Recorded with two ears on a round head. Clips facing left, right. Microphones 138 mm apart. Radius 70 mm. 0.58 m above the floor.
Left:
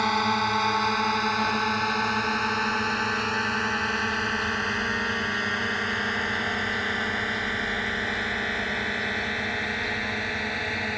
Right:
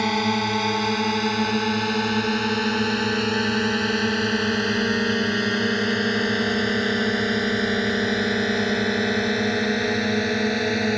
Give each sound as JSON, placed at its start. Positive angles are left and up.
{"t": 0.0, "sound": "a drone", "side_deg": -25}